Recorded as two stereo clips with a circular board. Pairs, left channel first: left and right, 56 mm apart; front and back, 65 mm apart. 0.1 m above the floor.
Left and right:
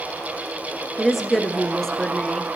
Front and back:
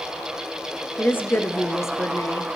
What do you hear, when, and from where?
1.0 s a woman speaking: 5° right, 1.4 m; by 2.6 s 15° left, 2.5 m